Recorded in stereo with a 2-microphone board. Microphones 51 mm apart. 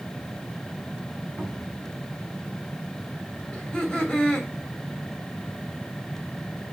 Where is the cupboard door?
30° right (ahead or behind), 3.5 m.